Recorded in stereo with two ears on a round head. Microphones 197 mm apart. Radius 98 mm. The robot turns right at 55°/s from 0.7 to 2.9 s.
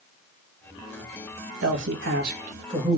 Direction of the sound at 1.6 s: 90° right.